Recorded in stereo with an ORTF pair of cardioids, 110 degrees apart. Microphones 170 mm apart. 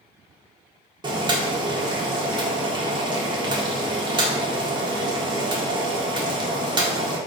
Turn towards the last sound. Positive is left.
turn(degrees=-25)